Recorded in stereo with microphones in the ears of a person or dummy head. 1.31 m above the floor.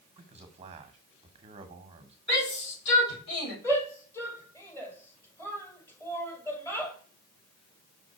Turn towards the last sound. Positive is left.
turn(degrees=15)  # may be behind; listen again after turning